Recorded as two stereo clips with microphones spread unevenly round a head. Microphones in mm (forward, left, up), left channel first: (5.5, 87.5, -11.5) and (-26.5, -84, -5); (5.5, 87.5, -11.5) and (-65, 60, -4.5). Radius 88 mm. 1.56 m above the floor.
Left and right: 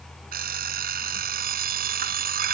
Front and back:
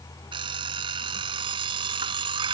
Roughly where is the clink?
No clink in this recording.